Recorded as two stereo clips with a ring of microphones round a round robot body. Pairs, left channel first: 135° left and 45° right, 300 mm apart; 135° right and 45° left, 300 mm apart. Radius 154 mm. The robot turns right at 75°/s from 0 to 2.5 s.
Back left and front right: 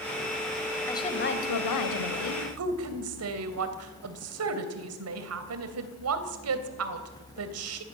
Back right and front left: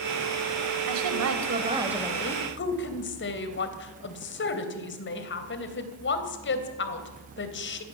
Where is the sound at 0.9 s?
50° left, 3 m; by 2.5 s 170° left, 3 m.